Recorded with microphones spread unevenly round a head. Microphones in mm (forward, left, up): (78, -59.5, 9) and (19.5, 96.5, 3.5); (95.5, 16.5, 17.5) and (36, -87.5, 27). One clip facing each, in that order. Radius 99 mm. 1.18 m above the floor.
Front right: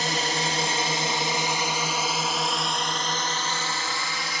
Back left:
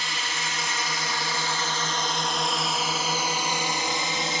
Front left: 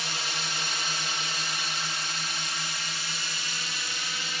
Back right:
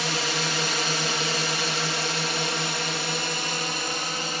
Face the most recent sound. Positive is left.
turn(degrees=180)